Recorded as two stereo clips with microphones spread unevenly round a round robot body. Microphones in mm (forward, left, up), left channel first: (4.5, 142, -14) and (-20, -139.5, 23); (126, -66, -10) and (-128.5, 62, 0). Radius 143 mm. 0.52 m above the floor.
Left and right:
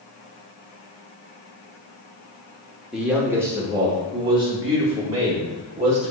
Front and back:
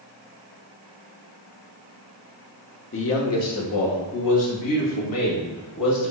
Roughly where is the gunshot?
I don't hear a gunshot.